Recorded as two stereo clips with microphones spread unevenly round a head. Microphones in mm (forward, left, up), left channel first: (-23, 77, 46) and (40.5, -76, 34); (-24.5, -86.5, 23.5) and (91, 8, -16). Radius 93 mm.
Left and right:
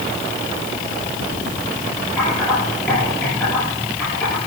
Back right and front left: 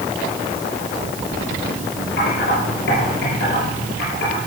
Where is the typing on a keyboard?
170° right, 9 m.